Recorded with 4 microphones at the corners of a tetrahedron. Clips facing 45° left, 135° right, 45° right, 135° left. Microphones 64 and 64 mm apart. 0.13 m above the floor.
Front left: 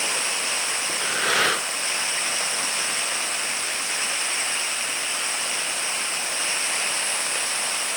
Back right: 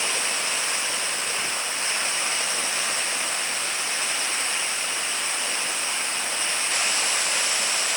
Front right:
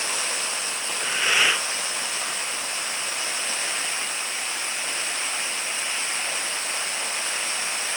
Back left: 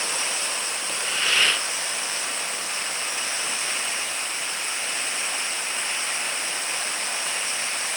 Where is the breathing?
35° left.